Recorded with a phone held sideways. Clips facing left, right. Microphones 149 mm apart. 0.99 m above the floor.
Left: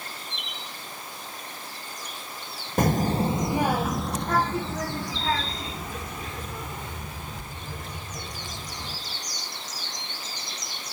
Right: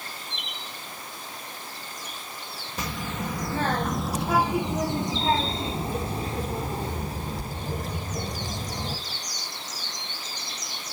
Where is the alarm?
No alarm in this recording.